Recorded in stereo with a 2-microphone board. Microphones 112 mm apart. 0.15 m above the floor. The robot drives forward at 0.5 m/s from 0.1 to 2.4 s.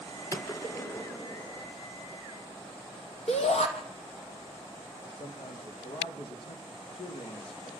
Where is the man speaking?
55° left (ahead or behind), 5 m.